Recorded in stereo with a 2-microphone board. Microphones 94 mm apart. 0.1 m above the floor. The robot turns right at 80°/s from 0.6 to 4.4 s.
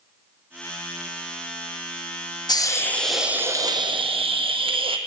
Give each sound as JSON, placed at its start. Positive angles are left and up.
{"t": 2.5, "sound": "a hiss", "azimuth_deg": 130, "distance_m": 0.7}